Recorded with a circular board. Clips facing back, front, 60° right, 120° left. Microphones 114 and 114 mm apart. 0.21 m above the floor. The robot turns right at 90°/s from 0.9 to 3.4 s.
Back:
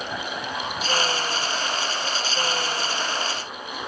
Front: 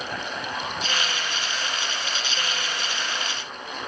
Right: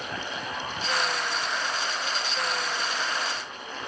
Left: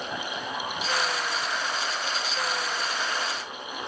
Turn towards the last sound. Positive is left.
No sound to turn to.